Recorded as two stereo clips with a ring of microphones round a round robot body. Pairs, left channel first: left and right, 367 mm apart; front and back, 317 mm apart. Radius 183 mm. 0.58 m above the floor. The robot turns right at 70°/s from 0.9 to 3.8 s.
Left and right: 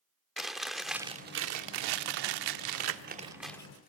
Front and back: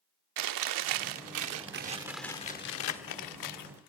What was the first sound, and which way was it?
Chewing, straight behind.